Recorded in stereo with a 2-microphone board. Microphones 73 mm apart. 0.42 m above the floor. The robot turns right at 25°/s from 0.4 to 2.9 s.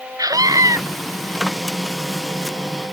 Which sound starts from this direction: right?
A scream, at 0.2 s.